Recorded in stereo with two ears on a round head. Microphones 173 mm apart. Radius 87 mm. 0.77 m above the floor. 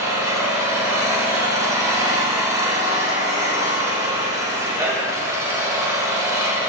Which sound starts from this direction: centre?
An engine running, at 0.0 s.